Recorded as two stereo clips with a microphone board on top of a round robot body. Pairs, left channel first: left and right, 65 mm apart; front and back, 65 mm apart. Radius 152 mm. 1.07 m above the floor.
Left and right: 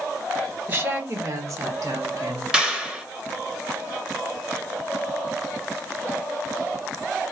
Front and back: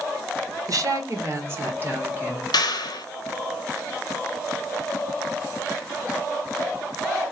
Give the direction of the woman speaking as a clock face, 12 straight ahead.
5 o'clock.